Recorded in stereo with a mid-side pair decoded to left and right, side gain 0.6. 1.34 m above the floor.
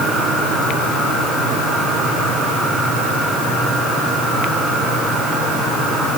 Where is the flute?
No flute in this recording.